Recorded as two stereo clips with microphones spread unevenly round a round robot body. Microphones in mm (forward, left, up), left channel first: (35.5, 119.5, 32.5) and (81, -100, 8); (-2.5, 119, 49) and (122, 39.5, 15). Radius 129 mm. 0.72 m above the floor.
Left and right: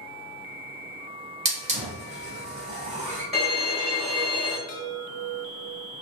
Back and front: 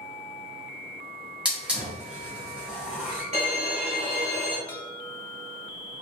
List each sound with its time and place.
1.4 s a hiss: 90° right, 0.7 m
3.3 s a violin: 10° left, 1.5 m
4.7 s a chime: 70° left, 0.7 m